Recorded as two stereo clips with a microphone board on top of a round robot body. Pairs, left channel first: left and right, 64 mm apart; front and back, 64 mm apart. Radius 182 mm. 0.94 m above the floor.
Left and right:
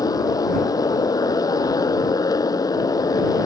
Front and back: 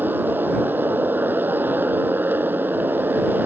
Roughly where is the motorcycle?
Behind left.